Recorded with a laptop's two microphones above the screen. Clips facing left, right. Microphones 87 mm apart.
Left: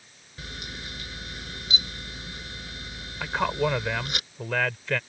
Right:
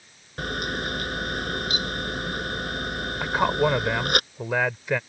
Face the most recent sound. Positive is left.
turn(degrees=-15)  # may be behind; listen again after turning